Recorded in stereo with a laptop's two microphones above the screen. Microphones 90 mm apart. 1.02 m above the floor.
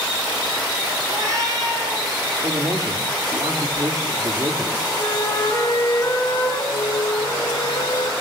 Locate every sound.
1.1 s a cat meowing: 40° right (ahead or behind), 6.5 m
2.4 s a man speaking: 45° right (ahead or behind), 2.5 m
5.0 s a flute: 35° left (ahead or behind), 6 m
6.7 s a flute: 80° left, 4 m